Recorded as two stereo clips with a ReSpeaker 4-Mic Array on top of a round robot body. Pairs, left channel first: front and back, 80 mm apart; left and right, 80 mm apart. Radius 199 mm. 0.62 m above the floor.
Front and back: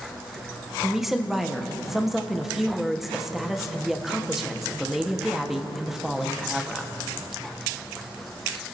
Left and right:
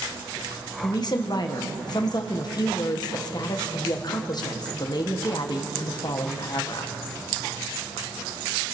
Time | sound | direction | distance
0.8 | a woman speaking | 95° left | 1.7 m